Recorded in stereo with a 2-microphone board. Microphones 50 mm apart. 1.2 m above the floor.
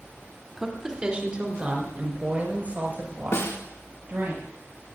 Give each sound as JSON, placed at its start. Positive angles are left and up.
{"t": 0.6, "sound": "a woman speaking", "side_deg": -10, "distance_m": 3.0}
{"t": 3.3, "sound": "a snare drum", "side_deg": 70, "distance_m": 2.5}